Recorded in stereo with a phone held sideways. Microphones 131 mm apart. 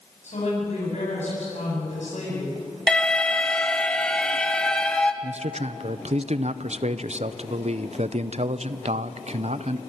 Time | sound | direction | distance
0.2 | a woman speaking | 60° left (ahead or behind) | 9 m
2.9 | an alarm | 5° left (ahead or behind) | 1.2 m
5.2 | a man speaking | 55° right (ahead or behind) | 0.7 m